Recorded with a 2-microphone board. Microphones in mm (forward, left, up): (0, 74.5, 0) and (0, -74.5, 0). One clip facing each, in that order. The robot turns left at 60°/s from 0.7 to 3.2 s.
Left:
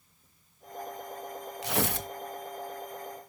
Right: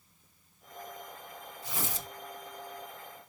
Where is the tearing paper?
80° left, 1.0 m; by 2.1 s 55° left (ahead or behind), 1.0 m.